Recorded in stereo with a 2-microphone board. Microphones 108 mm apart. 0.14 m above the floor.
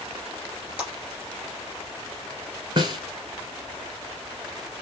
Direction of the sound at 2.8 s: 40° right (ahead or behind).